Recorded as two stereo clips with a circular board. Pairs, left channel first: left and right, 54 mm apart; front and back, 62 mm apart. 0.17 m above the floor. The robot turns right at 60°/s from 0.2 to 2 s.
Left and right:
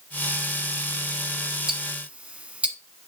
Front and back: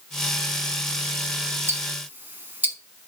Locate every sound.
1.7 s ticking: 160° right, 1.2 m; by 2.8 s 140° right, 1.2 m